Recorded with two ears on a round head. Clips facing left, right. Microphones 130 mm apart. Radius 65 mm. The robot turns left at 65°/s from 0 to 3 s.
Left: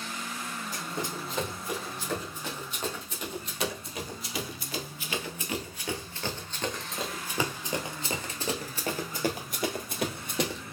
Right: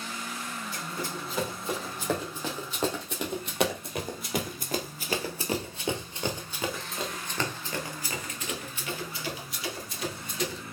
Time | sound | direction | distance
0.7 | running footsteps | 40° left (ahead or behind) | 3.5 m